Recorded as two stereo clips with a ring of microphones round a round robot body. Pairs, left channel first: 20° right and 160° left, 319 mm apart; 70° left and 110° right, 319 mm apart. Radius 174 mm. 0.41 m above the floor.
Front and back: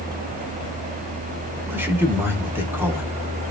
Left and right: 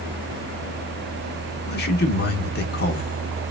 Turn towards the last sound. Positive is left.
turn(degrees=80)